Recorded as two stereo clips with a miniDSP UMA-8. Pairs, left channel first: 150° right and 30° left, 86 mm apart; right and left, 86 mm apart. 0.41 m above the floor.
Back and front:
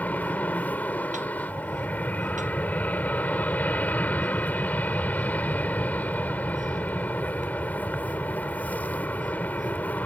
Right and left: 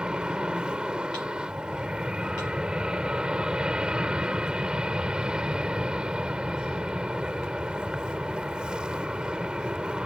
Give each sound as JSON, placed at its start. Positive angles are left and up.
{"t": 0.0, "sound": "an aircraft", "azimuth_deg": 160}